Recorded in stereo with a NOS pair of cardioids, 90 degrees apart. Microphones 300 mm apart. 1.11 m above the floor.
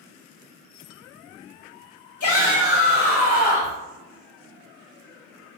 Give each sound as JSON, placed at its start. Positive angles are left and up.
{"t": 2.2, "sound": "a shout", "azimuth_deg": 50, "distance_m": 0.8}